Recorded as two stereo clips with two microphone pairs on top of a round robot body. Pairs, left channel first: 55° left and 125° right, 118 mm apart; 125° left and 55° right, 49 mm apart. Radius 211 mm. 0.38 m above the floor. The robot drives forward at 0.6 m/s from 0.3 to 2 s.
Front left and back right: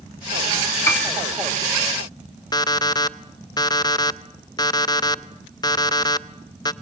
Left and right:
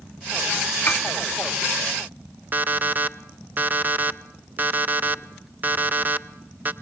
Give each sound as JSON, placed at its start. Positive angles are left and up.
{"t": 0.9, "sound": "a piano", "azimuth_deg": 115, "distance_m": 1.7}
{"t": 2.5, "sound": "an alarm clock", "azimuth_deg": -5, "distance_m": 0.8}